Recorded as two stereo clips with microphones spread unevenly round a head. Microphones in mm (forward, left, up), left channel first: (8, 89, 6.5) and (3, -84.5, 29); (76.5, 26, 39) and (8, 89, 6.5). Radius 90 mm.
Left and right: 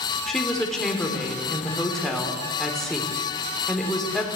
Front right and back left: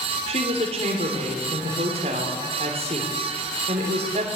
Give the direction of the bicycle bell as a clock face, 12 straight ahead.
I don't hear a bicycle bell.